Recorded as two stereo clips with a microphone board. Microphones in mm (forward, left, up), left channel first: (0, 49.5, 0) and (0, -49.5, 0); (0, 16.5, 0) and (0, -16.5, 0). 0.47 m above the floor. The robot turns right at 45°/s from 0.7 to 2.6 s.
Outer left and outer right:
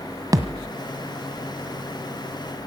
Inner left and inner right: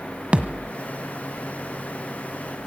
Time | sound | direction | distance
0.3 | a thud | 35° right (ahead or behind) | 1.3 m